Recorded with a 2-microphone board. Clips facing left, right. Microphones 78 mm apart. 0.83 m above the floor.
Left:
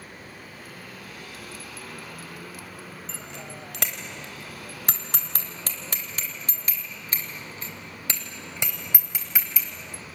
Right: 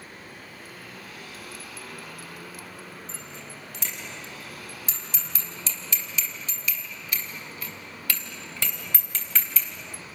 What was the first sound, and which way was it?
A bicycle bell, 85° left.